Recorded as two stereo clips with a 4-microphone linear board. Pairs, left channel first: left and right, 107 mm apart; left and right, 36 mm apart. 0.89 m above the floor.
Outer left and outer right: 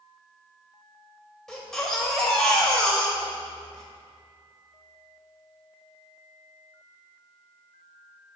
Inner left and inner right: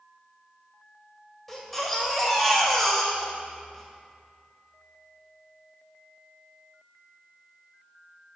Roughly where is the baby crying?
Centre.